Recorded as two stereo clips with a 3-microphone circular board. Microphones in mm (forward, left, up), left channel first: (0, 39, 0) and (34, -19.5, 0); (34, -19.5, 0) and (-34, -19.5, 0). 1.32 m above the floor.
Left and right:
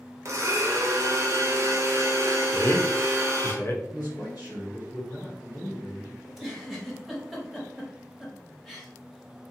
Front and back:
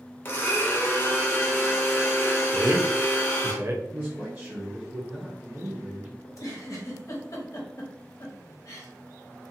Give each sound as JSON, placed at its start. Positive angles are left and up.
{"t": 0.2, "sound": "a blender", "azimuth_deg": -40, "distance_m": 0.7}
{"t": 2.5, "sound": "a man speaking", "azimuth_deg": 155, "distance_m": 0.5}
{"t": 3.9, "sound": "a man speaking", "azimuth_deg": 130, "distance_m": 1.7}
{"t": 6.2, "sound": "a giggle", "azimuth_deg": 30, "distance_m": 0.8}